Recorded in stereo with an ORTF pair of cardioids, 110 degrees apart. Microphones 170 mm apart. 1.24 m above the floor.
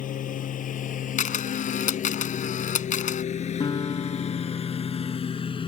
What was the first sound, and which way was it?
A lawn mower, 55° left.